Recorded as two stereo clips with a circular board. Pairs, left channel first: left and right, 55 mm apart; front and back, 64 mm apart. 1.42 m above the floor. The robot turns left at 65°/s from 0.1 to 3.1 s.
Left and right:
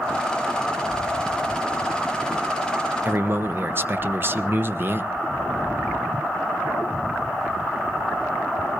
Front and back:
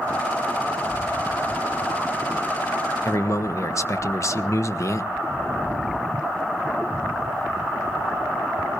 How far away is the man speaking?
About 0.9 m.